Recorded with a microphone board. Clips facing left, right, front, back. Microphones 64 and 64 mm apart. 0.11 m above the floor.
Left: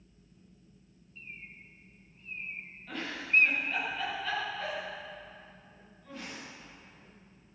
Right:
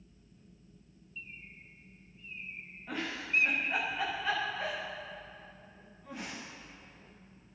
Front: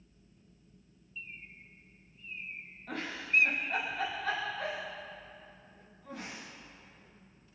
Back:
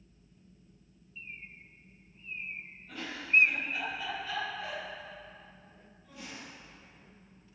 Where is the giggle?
20° right, 9.5 m.